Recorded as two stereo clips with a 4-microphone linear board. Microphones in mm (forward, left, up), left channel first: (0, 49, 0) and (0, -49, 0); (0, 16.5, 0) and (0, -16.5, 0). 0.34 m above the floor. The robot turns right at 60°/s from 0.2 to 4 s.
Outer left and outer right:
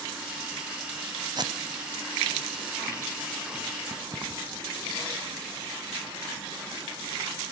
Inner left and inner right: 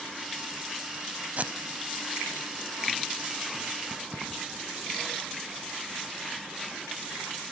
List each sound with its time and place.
1.4 s tape being pulled: 45° right (ahead or behind), 0.9 m; by 2.1 s 70° right (ahead or behind), 0.9 m
3.9 s keys jangling: 25° right (ahead or behind), 1.7 m; by 4.6 s 35° right (ahead or behind), 1.7 m